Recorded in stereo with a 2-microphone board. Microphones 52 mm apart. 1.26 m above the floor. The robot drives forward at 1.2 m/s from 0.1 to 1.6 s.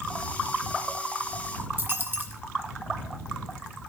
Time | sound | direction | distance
1.8 | a dropped coin | 40° right (ahead or behind) | 1.6 m